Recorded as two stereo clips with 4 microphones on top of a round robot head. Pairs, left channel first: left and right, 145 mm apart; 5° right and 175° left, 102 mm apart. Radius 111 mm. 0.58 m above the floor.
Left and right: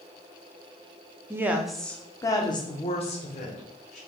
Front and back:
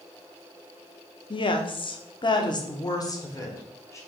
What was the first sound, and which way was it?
A woman speaking, 25° right.